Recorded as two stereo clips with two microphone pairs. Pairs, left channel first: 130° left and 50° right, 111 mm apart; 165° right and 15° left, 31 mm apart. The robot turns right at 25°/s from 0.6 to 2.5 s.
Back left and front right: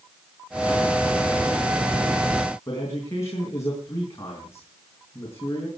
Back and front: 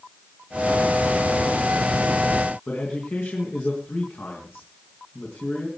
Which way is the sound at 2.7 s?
165° right.